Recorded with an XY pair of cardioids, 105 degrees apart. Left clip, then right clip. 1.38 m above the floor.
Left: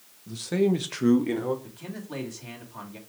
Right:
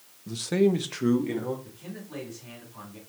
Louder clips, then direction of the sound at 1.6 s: Left 3 dB; 55° left.